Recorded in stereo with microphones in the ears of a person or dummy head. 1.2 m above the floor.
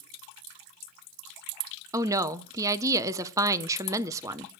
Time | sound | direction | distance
1.9 | a woman speaking | 15° right (ahead or behind) | 0.5 m